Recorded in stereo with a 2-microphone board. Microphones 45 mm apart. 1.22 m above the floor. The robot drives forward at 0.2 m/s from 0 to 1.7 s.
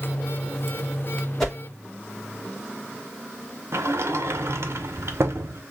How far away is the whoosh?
About 1.3 m.